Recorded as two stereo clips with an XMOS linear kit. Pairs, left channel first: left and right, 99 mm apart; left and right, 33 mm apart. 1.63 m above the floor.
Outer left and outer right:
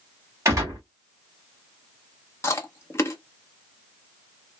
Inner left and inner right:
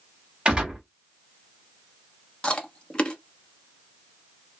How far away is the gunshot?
About 1.8 m.